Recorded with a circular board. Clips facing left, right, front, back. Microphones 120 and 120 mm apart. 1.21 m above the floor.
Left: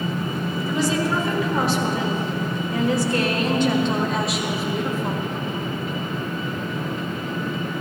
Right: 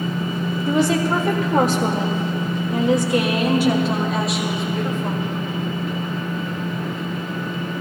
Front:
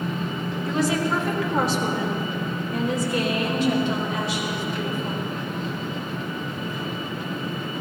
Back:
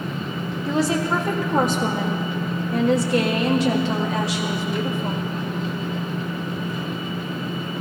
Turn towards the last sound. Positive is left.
turn(degrees=170)